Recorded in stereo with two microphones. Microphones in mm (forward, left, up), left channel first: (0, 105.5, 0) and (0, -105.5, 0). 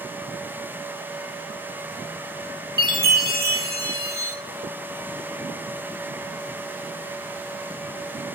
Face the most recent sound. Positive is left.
turn(degrees=-45)  # may be behind; listen again after turning